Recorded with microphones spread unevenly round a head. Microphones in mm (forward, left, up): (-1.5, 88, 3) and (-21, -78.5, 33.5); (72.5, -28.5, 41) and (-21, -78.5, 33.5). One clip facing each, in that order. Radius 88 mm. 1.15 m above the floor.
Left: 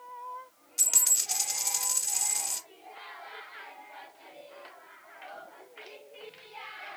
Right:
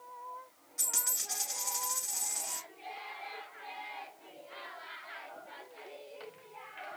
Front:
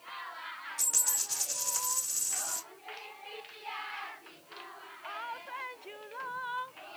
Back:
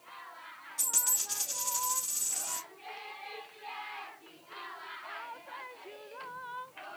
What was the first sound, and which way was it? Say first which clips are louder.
A dropped coin: even, back 1 dB; 125° left.